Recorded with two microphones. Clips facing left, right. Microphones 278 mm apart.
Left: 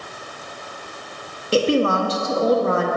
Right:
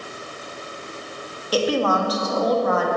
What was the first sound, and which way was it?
A woman speaking, 30° left (ahead or behind).